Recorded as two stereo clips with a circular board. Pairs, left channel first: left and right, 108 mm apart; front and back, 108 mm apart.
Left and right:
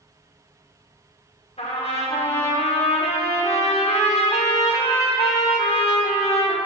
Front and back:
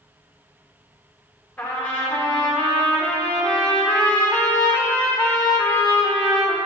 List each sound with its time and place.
1.6 s a trumpet: 80° left, 1.3 m